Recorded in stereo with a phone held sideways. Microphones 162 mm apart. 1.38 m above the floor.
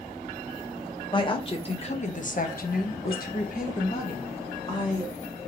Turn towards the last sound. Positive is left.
turn(degrees=30)  # may be behind; listen again after turning